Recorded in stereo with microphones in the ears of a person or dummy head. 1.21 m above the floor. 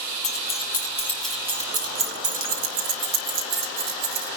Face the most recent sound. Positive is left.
turn(degrees=-75)  # may be behind; listen again after turning